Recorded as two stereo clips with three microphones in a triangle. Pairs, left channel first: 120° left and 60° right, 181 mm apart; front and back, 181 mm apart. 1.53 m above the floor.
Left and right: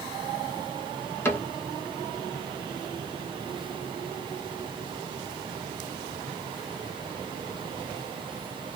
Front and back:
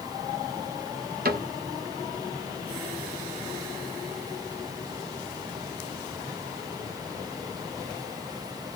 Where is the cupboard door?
165° right, 1.0 m.